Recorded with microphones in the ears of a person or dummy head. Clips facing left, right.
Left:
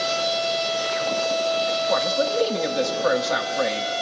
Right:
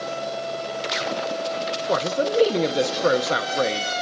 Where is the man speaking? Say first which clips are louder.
Right 3 dB; 35° right (ahead or behind), 0.8 m.